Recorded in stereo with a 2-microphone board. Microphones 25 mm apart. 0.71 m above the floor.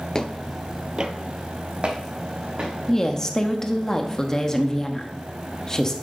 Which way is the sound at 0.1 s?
30° left (ahead or behind).